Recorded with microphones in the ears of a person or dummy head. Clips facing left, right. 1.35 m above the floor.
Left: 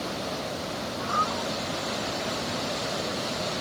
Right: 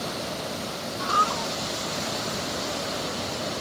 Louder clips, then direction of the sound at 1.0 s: Right 3 dB; 45° right (ahead or behind).